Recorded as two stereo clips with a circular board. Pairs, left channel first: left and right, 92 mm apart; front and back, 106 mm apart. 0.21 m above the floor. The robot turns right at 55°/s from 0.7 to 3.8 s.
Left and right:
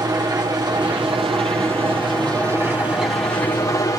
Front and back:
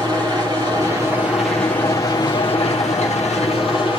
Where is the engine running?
135° right, 4.5 m; by 4.0 s 35° left, 4.5 m.